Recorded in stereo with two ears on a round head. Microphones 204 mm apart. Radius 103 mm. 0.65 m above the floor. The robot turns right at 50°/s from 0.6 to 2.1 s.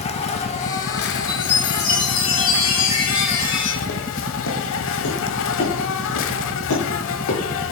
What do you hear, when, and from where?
0.0 s an insect: 30° left, 0.8 m; by 7.7 s 105° left, 0.8 m
1.3 s a chime: 15° left, 4.5 m; by 3.7 s 55° left, 4.5 m
3.8 s footsteps: 50° left (ahead or behind), 1.7 m; by 7.4 s 65° left (ahead or behind), 5 m